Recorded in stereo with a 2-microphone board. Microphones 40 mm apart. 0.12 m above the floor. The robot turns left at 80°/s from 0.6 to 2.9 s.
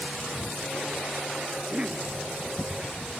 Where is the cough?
130° right; by 2.1 s 175° right.